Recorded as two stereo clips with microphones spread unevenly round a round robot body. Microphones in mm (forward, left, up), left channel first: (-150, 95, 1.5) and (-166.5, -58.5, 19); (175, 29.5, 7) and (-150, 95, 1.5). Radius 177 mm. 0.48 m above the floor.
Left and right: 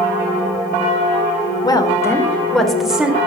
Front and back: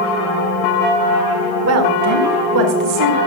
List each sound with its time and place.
1.6 s a woman speaking: 135° left, 1.6 m; by 3.2 s straight behind, 2.0 m